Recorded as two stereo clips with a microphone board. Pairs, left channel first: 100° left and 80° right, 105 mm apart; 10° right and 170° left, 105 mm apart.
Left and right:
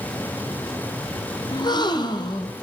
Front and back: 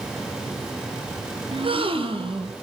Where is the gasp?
145° left, 2.5 m.